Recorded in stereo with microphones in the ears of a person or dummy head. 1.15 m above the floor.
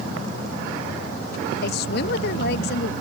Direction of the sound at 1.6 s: 55° left (ahead or behind).